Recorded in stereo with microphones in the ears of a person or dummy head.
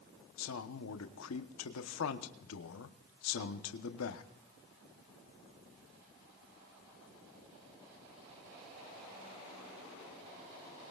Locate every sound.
0.4 s a man speaking: 75° left (ahead or behind), 1.1 m